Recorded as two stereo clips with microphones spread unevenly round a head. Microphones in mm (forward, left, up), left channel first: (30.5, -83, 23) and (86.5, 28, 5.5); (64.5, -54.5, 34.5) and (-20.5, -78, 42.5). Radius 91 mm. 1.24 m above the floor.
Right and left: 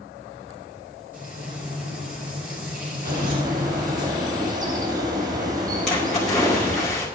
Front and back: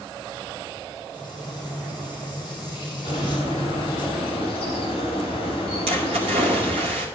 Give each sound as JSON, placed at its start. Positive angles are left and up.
{"t": 1.1, "sound": "frying", "azimuth_deg": 100, "distance_m": 4.0}
{"t": 3.0, "sound": "a bird", "azimuth_deg": 60, "distance_m": 3.5}
{"t": 5.9, "sound": "a splash", "azimuth_deg": 160, "distance_m": 2.0}